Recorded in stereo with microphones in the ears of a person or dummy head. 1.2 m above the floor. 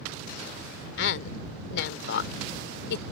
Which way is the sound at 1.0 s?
65° left (ahead or behind).